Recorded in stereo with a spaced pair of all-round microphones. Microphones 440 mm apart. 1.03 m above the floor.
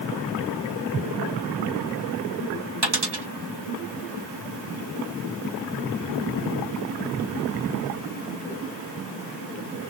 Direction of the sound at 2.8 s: 70° right (ahead or behind).